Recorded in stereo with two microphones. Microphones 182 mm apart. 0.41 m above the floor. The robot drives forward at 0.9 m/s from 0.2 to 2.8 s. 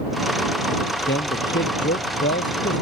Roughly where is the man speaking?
Left.